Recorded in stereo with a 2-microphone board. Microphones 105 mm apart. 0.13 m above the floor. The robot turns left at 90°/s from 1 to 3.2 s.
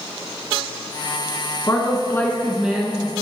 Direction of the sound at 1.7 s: 25° left (ahead or behind).